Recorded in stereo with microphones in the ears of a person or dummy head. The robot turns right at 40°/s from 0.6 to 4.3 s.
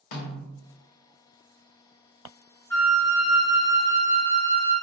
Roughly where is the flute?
Behind.